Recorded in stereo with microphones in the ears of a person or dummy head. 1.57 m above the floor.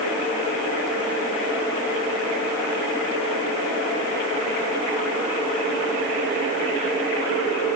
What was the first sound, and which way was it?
Only background noise.